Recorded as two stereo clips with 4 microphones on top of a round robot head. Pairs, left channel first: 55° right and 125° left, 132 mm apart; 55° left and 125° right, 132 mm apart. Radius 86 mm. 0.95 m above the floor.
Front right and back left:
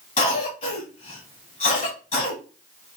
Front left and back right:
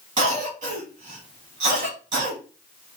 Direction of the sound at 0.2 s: 70° right.